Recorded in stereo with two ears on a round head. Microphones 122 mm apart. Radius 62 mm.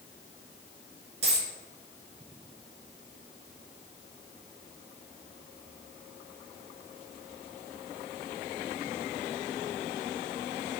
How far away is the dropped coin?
About 2.0 m.